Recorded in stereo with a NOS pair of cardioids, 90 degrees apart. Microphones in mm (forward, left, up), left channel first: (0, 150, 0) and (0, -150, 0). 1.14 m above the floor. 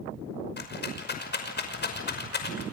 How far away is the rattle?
About 5.5 m.